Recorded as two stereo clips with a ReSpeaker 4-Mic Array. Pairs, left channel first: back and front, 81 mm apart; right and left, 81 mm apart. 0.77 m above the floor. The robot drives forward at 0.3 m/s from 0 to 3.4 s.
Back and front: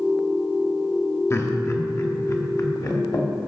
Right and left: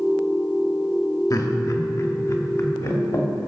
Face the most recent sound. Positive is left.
turn(degrees=-145)